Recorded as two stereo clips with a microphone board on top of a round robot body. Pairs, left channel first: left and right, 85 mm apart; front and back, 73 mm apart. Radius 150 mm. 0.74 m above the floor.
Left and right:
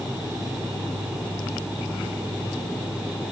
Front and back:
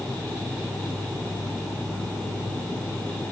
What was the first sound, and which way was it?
Only background noise.